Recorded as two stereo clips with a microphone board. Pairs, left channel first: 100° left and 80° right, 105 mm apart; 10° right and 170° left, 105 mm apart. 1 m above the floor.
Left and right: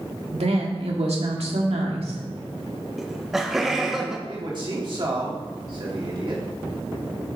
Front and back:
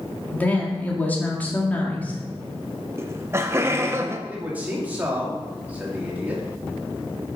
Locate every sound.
0.3 s a woman speaking: 85° right, 2 m
3.0 s laughter: 160° right, 0.6 m
4.3 s a man speaking: 115° right, 2.5 m